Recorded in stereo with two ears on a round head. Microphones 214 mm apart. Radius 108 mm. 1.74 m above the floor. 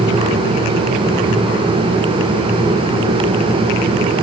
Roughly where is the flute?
No flute in this recording.